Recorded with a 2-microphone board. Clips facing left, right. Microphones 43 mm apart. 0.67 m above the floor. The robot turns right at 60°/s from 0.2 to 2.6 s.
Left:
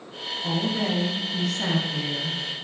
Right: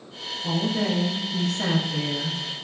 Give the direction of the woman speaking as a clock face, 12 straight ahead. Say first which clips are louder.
Right 1 dB; 7 o'clock.